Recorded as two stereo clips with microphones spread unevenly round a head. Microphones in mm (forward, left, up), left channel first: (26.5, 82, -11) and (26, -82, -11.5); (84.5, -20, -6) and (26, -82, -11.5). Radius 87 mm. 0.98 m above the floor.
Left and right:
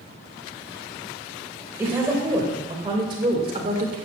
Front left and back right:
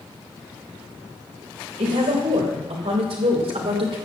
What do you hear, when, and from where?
1.8 s a woman speaking: 170° right, 3.5 m; by 4.0 s 145° right, 2 m